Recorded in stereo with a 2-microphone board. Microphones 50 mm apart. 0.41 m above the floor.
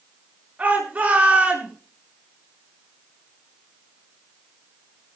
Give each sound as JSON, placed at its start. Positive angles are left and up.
{"t": 0.6, "sound": "a shout", "side_deg": -30, "distance_m": 7.0}